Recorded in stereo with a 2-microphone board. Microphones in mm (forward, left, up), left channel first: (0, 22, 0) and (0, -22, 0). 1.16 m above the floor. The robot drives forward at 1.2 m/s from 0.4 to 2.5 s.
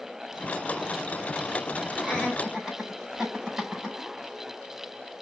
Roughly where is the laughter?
Centre.